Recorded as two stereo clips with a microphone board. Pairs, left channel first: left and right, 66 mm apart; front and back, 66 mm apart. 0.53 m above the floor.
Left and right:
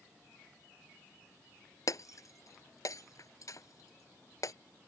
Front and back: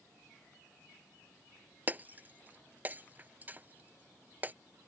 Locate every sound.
1.9 s breaking glass: 120° left